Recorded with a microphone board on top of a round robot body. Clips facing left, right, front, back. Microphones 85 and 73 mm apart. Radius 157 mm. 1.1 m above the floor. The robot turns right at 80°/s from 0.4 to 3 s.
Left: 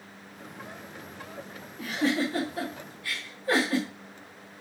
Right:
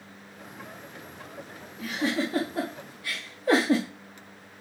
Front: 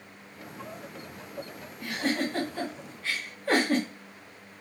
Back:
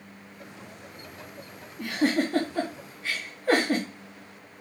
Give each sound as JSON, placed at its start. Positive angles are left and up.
{"t": 1.8, "sound": "a giggle", "azimuth_deg": 160, "distance_m": 0.5}